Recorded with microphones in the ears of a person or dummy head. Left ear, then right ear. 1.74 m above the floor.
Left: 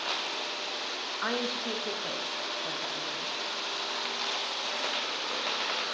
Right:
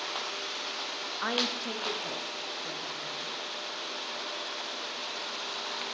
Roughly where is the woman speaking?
Centre.